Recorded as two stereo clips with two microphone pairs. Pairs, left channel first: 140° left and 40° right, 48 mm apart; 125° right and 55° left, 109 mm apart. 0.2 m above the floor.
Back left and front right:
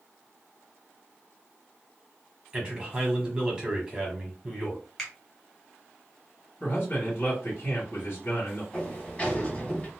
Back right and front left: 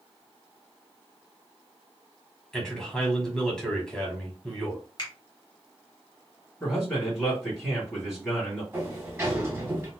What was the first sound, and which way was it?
A man speaking, 55° right.